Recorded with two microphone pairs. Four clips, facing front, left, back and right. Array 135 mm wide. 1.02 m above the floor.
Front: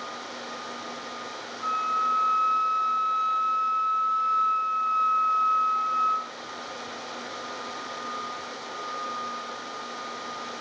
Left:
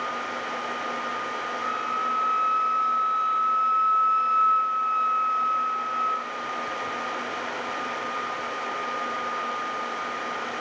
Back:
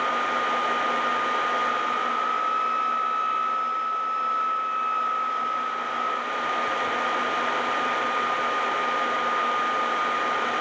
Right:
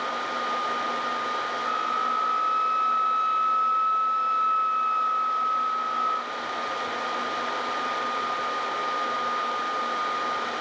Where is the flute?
70° left, 2.5 m.